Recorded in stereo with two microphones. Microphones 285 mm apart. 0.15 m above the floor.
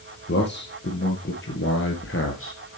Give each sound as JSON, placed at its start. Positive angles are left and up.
{"t": 0.3, "sound": "a man speaking", "side_deg": 40, "distance_m": 3.5}